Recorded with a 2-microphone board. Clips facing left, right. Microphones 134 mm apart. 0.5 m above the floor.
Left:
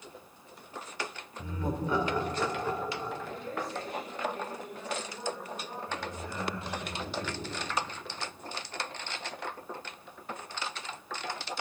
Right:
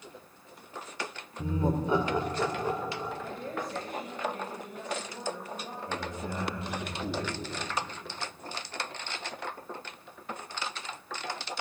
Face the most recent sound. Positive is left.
turn(degrees=-60)  # may be behind; listen again after turning